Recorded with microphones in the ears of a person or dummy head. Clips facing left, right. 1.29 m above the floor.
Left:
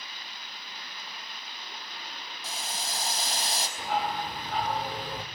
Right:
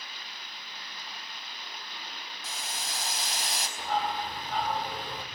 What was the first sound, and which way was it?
Boiling, 35° left (ahead or behind).